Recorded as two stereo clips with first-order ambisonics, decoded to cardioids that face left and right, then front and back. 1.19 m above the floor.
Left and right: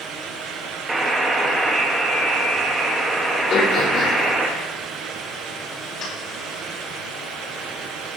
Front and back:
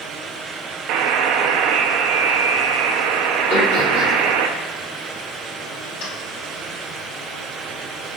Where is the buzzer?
170° right, 0.7 m.